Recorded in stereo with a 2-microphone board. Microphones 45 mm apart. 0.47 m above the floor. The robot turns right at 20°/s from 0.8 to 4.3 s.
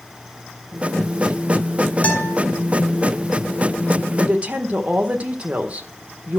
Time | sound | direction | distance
2.0 | a guitar | 35° left (ahead or behind) | 2 m
4.2 | a woman speaking | 30° right (ahead or behind) | 1.4 m